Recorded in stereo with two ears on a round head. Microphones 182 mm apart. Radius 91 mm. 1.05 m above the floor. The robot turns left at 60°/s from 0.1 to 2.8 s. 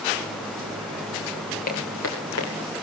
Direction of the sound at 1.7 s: 45° left (ahead or behind).